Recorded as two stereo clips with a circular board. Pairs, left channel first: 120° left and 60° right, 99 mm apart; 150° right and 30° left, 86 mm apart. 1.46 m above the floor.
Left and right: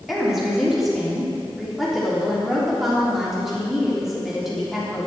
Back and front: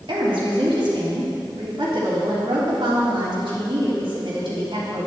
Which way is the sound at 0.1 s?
25° left.